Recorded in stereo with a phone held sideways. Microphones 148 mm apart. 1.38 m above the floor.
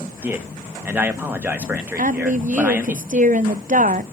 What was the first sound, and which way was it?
A man speaking, 10° right (ahead or behind).